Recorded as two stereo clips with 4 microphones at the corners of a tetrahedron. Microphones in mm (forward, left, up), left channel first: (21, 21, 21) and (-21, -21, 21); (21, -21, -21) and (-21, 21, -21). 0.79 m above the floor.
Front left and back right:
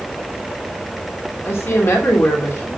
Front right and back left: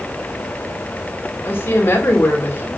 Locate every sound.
1.4 s a woman speaking: 5° left, 3 m